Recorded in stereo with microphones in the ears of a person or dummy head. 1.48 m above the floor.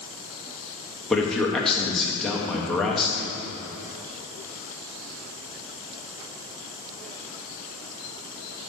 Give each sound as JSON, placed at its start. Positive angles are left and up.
{"t": 1.1, "sound": "a man speaking", "side_deg": 0, "distance_m": 0.9}